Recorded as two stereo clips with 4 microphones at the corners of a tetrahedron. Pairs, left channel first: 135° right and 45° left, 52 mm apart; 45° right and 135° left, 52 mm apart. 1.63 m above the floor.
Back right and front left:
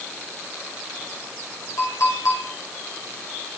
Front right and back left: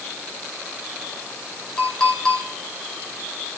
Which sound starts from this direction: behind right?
A clink, at 1.8 s.